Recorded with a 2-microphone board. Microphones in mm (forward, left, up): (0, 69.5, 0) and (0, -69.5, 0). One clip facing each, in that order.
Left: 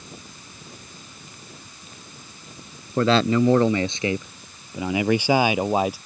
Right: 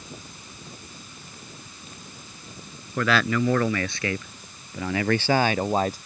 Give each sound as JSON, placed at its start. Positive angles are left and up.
{"t": 3.0, "sound": "a man speaking", "side_deg": 30}